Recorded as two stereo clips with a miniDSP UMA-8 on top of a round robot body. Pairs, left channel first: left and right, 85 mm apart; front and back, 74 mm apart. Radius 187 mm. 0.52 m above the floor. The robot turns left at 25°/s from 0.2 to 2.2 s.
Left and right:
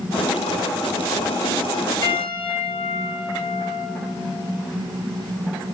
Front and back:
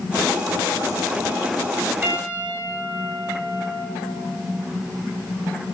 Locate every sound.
2.0 s a piano: 120° left, 4 m; by 3.9 s 115° left, 4 m